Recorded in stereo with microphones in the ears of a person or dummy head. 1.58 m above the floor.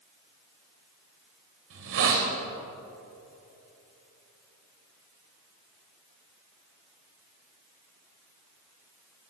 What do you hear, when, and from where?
1.7 s a hiss: 60° right (ahead or behind), 2.5 m